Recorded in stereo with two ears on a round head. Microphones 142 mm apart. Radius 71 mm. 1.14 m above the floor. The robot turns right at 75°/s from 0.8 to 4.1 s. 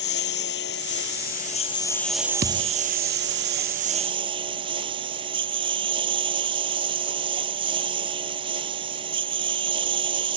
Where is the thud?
70° right (ahead or behind); by 2.7 s 55° right (ahead or behind).